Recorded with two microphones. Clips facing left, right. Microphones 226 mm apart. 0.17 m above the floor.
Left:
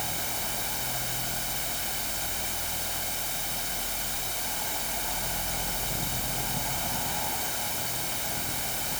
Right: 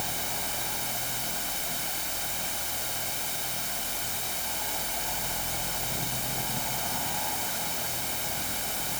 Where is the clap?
I don't hear a clap.